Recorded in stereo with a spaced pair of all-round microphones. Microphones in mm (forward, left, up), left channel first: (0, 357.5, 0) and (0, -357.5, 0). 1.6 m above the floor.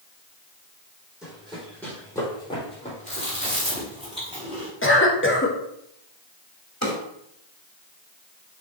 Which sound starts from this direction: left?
A drawer, at 6.8 s.